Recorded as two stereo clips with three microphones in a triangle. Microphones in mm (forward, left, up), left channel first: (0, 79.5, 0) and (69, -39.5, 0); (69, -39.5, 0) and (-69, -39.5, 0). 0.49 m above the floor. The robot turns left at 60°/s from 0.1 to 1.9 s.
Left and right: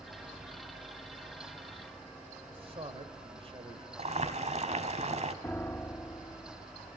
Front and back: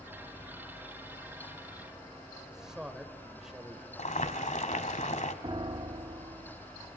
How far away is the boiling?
About 1.6 m.